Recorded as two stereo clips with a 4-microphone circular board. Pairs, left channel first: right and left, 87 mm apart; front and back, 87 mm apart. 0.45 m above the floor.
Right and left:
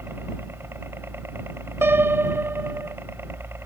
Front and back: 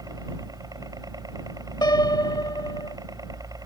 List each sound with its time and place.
0.0 s a helicopter: 145° left
1.8 s a piano: 30° left